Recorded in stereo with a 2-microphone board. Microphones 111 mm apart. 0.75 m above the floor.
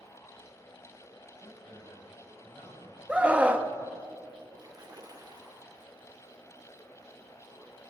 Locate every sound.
1.4 s a man speaking: 20° left (ahead or behind), 5.5 m; by 4.0 s 35° left (ahead or behind), 5 m
3.1 s a scream: 10° right (ahead or behind), 1.0 m
4.6 s a splash: 40° right (ahead or behind), 2 m